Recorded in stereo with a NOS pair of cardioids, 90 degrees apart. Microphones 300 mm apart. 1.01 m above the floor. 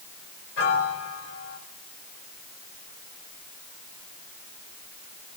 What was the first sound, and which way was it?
A piano, 55° left.